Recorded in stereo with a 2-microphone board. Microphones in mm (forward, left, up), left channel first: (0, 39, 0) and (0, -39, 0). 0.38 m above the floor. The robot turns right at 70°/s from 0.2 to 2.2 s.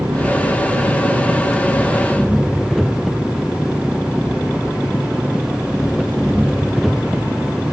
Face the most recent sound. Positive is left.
turn(degrees=0)